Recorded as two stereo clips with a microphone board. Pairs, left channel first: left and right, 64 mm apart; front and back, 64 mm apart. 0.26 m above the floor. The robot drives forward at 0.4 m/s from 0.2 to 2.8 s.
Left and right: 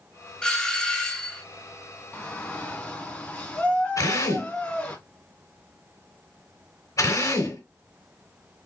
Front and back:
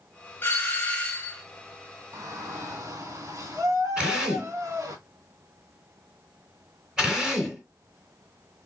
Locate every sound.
0.4 s a doorbell: 25° left, 1.7 m; by 1.4 s 40° left, 1.6 m
2.1 s a shout: 155° left, 2 m
4.0 s a drill: 105° left, 2 m